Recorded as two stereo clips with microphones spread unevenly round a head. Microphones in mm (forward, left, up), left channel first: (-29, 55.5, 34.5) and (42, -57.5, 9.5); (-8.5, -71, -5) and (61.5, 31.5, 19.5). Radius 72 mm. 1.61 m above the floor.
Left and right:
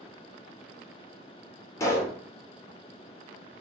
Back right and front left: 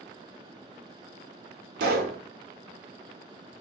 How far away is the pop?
About 0.7 m.